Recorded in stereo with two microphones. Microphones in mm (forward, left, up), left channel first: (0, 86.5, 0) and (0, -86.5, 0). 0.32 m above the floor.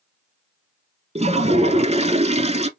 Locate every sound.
1.1 s a toilet flushing: 40° right (ahead or behind), 0.6 m